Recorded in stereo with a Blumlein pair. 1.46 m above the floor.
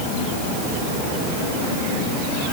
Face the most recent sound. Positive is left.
No sound to turn to.